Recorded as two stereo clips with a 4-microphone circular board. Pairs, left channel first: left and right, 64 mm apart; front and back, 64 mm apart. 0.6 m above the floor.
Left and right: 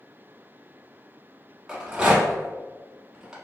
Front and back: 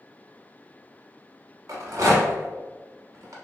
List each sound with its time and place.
1.7 s a rattle: 165° right, 0.8 m